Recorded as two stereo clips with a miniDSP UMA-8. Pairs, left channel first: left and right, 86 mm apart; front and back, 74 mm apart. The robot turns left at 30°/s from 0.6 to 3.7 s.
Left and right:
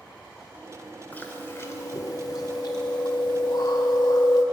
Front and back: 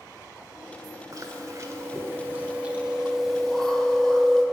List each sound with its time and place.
1.1 s chewing: 155° left, 1.6 m; by 4.4 s 80° left, 1.6 m